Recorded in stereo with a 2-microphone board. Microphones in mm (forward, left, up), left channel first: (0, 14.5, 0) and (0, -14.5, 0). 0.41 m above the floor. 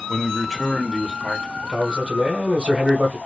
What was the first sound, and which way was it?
A man speaking, 10° right (ahead or behind).